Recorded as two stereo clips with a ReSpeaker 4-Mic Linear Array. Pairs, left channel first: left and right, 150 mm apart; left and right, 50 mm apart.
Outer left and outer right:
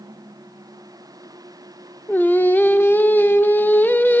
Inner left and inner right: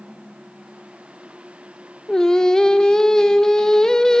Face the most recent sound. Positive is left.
turn(degrees=15)  # may be behind; listen again after turning